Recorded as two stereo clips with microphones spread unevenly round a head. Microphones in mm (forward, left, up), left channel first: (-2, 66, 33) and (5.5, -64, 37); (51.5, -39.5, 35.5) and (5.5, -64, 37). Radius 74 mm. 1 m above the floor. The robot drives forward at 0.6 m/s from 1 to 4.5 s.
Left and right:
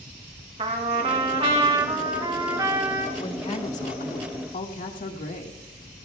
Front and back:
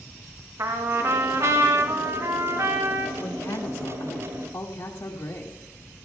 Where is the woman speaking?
50° left, 2 m; by 5.6 s 75° left, 1.7 m.